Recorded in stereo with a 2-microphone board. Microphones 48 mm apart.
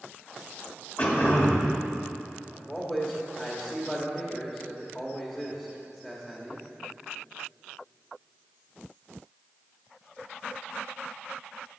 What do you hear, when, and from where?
1.0 s throat clearing: 35° left (ahead or behind), 1.6 m
2.5 s a man speaking: 20° left (ahead or behind), 1.2 m